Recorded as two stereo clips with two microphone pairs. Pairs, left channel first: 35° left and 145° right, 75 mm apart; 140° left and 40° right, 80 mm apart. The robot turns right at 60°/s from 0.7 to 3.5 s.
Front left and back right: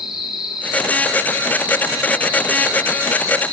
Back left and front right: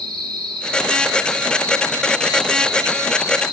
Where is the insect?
60° right, 1.8 m; by 3.5 s 110° left, 1.8 m.